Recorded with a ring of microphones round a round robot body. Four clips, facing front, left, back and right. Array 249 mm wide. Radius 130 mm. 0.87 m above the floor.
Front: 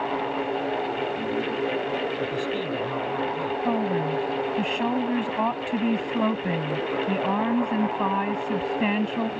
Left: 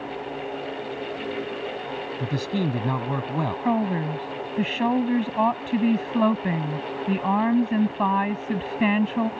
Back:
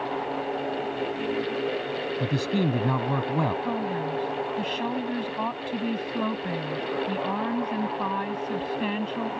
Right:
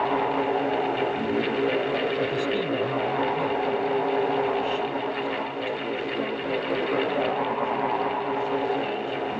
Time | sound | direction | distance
2.2 | a man speaking | 135° left | ?
3.6 | a woman speaking | 75° left | ?